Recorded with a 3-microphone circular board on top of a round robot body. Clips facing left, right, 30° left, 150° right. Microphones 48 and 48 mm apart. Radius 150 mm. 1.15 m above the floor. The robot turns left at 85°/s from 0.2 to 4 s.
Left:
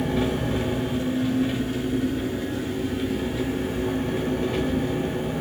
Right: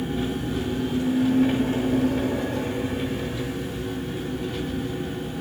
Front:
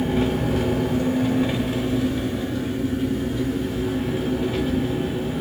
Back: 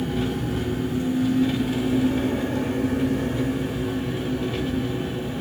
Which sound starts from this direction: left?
An engine running, at 0.0 s.